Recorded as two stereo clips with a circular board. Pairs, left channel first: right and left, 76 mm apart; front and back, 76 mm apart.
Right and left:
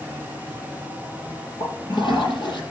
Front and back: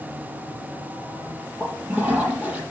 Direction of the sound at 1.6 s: 110° right.